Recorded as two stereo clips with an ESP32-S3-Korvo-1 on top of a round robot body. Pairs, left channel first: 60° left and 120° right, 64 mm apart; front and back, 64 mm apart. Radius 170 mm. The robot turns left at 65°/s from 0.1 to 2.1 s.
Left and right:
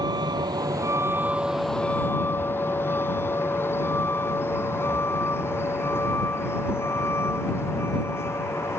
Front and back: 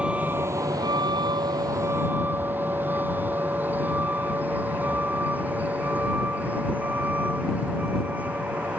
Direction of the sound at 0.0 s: 105° right.